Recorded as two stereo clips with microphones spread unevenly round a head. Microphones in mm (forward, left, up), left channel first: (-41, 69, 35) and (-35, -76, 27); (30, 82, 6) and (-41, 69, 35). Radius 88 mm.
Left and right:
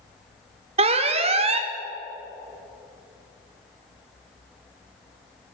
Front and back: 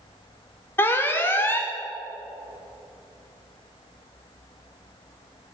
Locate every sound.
0.8 s an alarm: 40° right, 0.8 m